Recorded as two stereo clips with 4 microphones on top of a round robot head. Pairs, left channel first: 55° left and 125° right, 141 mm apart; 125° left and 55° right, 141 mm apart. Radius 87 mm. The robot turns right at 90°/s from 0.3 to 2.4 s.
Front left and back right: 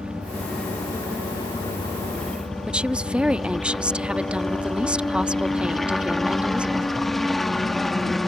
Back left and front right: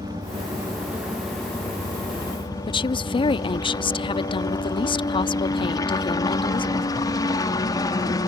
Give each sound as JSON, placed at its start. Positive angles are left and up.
{"t": 0.0, "sound": "a helicopter", "azimuth_deg": -50}
{"t": 2.7, "sound": "a woman speaking", "azimuth_deg": 155}